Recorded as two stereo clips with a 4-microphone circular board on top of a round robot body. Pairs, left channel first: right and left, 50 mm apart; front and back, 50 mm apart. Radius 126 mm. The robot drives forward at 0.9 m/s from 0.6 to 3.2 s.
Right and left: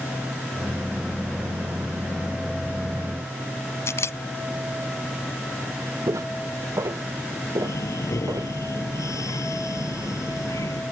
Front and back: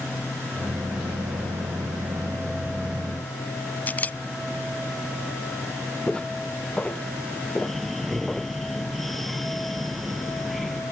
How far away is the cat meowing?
No cat meowing in this recording.